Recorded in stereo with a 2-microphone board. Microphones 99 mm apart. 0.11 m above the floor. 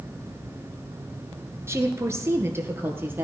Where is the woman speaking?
25° right (ahead or behind), 1.2 m; by 3.2 s 20° right (ahead or behind), 2.5 m.